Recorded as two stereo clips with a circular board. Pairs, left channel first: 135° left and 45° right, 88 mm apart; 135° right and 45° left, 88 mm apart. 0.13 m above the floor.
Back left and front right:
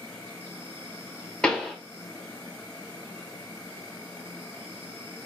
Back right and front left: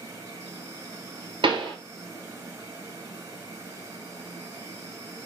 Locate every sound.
0.0 s an insect: 80° left, 1.5 m
1.4 s a pop: 55° left, 0.6 m